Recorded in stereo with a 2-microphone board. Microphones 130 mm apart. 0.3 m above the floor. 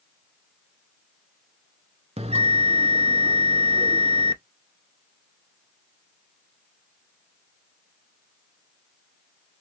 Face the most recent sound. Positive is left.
turn(degrees=-50)  # may be behind; listen again after turning